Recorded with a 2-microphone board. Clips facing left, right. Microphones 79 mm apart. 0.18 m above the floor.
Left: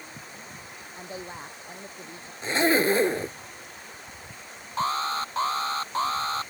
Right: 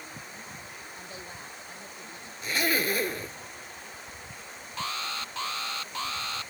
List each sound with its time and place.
0.9 s a woman speaking: 30° left (ahead or behind)
2.4 s a zipper: 30° left (ahead or behind)
4.8 s an alarm: 40° left (ahead or behind)